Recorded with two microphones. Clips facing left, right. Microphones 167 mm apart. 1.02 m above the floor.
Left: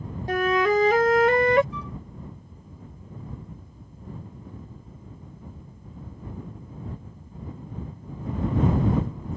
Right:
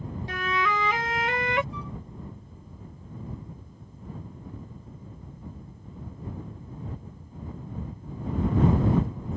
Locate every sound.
0.3 s a flute: 45° left (ahead or behind)
1.7 s a flute: 80° left